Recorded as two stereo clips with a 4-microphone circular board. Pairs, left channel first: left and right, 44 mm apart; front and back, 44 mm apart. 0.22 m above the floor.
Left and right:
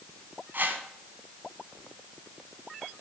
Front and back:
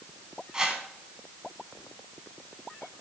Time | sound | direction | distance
0.5 | a whoosh | 115° right | 1.2 m